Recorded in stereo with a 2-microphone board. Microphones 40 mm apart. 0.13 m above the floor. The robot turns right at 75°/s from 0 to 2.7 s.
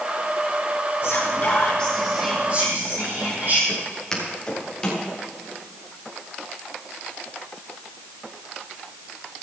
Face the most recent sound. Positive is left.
turn(degrees=20)  # may be behind; listen again after turning